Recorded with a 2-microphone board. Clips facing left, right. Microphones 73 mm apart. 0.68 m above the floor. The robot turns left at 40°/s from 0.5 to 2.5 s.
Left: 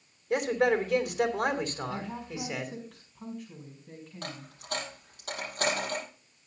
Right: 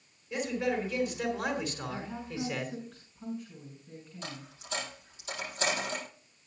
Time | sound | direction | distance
0.3 | a man speaking | 95° left | 2.5 m
1.9 | a woman speaking | 85° left | 5 m
4.2 | a dropped coin | 60° left (ahead or behind) | 6 m